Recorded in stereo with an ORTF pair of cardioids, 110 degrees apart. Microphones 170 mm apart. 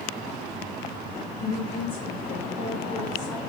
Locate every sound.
1.4 s a woman speaking: 15° left, 1.2 m; by 3.4 s 75° left, 1.5 m